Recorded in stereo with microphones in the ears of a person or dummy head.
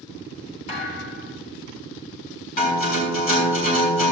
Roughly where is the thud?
Left.